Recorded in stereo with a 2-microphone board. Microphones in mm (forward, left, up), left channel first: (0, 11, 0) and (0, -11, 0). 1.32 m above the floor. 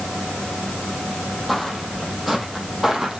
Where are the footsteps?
Centre (ahead or behind), 3 m; by 3.2 s 25° right (ahead or behind), 3.5 m.